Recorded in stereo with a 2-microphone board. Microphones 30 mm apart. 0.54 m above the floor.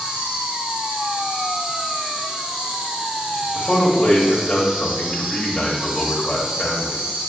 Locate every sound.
0.0 s an insect: 35° right (ahead or behind), 3.5 m
3.5 s a man speaking: 5° left (ahead or behind), 2 m